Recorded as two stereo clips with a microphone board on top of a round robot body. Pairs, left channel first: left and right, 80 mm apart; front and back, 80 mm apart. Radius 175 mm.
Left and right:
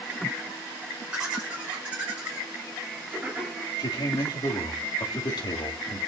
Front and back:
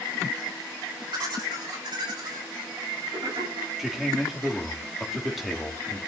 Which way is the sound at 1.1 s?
165° right.